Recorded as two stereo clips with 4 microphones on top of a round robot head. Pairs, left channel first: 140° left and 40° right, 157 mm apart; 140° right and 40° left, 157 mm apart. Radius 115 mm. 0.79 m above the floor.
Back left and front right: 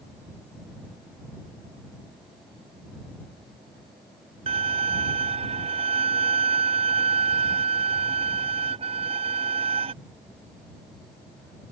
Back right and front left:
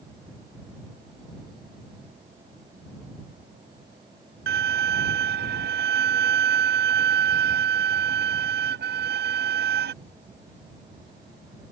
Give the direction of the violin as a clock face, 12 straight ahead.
11 o'clock.